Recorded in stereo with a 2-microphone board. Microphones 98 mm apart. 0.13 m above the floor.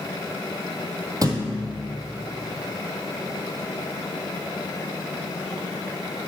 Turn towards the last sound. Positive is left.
turn(degrees=-40)  # may be behind; listen again after turning